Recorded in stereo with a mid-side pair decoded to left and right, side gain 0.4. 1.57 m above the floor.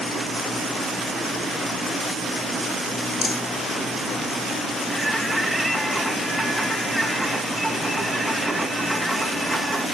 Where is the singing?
Straight ahead, 2.5 m.